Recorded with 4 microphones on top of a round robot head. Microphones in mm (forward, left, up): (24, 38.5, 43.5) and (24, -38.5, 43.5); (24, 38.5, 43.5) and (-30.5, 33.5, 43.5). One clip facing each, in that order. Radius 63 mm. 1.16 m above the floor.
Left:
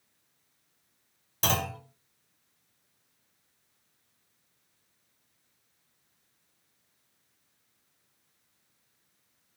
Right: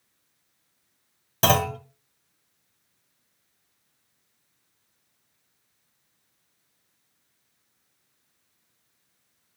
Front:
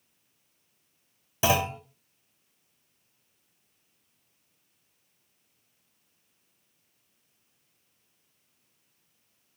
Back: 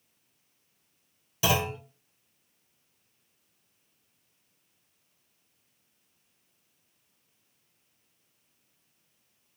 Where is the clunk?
60° right, 2 m.